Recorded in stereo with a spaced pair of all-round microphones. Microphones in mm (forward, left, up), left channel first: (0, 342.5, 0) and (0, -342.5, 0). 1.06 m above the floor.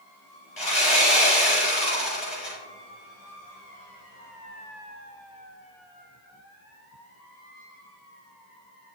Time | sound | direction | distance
0.6 | sawing | 65° left (ahead or behind) | 5 m